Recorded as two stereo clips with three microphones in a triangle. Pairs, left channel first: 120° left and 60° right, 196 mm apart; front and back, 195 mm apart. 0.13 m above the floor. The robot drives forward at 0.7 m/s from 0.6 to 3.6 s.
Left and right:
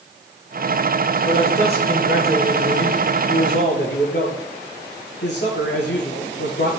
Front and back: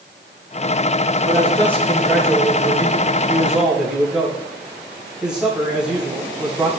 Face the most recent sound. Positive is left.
turn(degrees=95)